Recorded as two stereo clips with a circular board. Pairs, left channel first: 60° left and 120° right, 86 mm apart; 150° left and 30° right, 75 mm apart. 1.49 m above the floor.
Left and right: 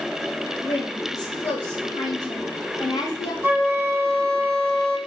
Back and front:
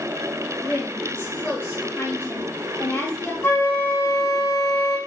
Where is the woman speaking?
85° left, 0.9 m.